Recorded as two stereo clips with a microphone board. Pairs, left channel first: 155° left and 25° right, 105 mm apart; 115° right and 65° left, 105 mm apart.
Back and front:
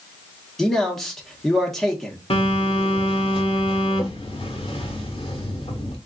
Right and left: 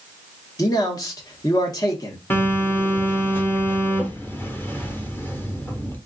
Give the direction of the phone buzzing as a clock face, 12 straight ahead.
6 o'clock.